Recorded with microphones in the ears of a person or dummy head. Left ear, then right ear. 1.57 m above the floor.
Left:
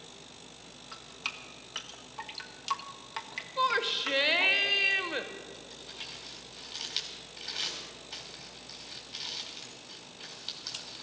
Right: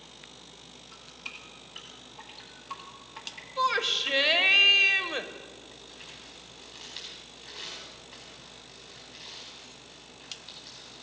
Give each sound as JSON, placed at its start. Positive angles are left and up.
{"t": 0.9, "sound": "dripping", "side_deg": 55, "distance_m": 1.4}
{"t": 3.6, "sound": "a shout", "side_deg": -5, "distance_m": 0.9}
{"t": 5.7, "sound": "crumpling", "side_deg": 45, "distance_m": 4.0}